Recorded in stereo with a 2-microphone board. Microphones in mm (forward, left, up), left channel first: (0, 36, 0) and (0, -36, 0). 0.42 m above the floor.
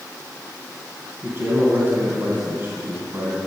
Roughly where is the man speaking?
Right.